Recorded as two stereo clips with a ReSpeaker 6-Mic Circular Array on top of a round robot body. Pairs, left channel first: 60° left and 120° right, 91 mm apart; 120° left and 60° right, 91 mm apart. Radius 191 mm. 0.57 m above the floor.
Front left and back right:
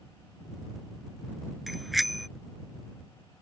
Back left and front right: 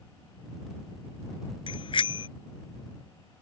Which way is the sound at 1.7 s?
150° left.